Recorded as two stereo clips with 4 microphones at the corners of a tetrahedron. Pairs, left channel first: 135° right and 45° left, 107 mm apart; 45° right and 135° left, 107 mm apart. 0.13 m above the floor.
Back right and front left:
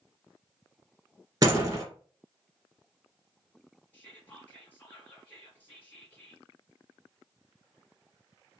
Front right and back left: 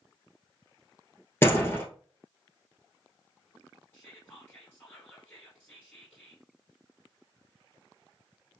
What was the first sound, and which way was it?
A door slam, 10° left.